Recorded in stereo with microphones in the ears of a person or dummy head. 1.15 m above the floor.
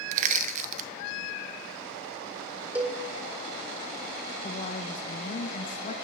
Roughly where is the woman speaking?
Left.